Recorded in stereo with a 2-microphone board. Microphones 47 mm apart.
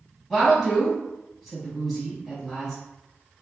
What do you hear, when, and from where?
0.3 s a woman speaking: 5° left (ahead or behind), 1.6 m